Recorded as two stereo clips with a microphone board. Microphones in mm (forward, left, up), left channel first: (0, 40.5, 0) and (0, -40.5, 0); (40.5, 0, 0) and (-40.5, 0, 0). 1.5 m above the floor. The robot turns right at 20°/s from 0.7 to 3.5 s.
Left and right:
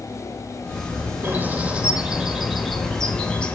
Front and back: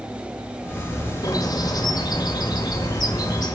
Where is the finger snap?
No finger snap in this recording.